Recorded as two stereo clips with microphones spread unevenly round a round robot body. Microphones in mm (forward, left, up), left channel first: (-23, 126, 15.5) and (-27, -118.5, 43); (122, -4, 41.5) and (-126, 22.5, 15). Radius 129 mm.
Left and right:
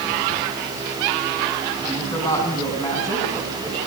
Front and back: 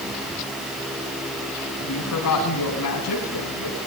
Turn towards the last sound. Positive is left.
turn(degrees=10)